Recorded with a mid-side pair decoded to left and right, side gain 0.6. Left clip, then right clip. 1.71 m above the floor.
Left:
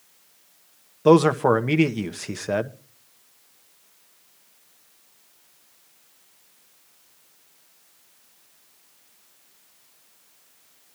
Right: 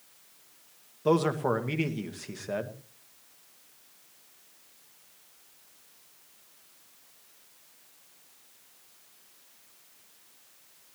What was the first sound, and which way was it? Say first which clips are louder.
A man speaking: left 10 dB; 45° left.